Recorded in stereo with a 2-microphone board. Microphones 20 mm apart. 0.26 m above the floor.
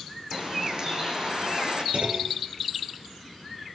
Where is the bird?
40° right (ahead or behind), 6 m.